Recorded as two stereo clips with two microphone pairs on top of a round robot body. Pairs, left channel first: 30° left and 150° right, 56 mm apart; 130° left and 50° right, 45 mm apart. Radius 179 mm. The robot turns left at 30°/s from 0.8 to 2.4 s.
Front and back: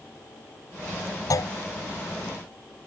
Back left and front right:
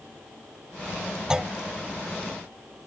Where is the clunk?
30° left; by 1.5 s 25° left.